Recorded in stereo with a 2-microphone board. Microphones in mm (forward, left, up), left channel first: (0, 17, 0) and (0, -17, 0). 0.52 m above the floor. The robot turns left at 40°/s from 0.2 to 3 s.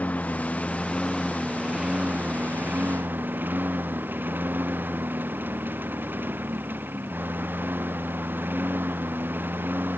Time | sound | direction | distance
0.0 | a lawn mower | 50° left (ahead or behind) | ?